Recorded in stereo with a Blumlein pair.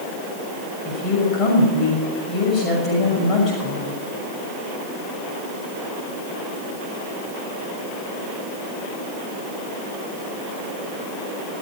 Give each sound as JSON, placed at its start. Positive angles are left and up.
{"t": 0.8, "sound": "a woman speaking", "azimuth_deg": 30, "distance_m": 6.0}